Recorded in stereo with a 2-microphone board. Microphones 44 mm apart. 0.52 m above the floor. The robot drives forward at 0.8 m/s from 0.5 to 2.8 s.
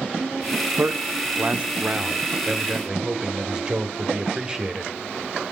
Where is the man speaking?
35° right (ahead or behind), 1.0 m; by 4.9 s 20° right (ahead or behind), 2.0 m.